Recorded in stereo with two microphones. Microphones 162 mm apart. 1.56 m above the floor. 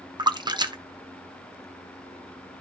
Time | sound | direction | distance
0.2 | a splash | 25° right (ahead or behind) | 0.7 m